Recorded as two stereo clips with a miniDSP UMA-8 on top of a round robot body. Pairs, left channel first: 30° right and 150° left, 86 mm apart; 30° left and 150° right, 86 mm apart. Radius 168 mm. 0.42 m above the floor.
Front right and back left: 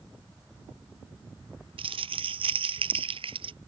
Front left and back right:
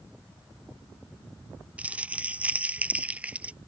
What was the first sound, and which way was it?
Crumpling, 135° left.